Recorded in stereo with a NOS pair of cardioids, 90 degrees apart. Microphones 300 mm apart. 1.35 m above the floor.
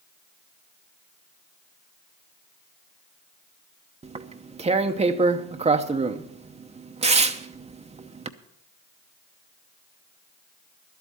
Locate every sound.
4.0 s tearing paper: 20° right, 0.8 m